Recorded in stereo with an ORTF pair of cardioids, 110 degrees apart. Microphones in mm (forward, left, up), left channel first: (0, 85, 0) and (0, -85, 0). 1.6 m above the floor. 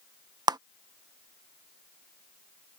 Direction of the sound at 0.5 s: 25° right.